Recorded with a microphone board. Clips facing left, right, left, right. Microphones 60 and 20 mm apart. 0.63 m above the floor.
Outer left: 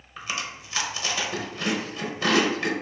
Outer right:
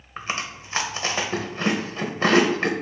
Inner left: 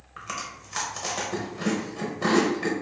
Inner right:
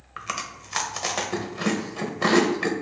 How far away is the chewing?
About 0.7 m.